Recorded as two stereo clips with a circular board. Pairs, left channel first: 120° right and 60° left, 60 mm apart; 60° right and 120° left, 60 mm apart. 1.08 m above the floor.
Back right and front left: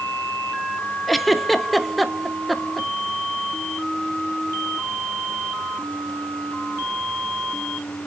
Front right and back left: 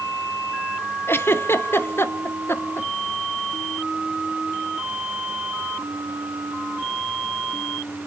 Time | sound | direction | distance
1.1 | a giggle | 30° right | 0.9 m